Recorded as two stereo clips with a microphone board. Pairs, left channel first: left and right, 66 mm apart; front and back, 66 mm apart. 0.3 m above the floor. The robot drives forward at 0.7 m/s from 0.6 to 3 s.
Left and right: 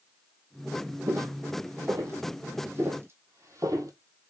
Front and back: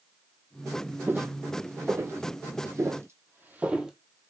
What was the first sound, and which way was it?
Footsteps, 125° right.